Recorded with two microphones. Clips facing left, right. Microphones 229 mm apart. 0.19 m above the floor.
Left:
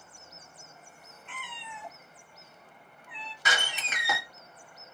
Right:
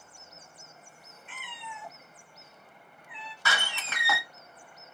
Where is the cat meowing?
Centre (ahead or behind), 1.5 m.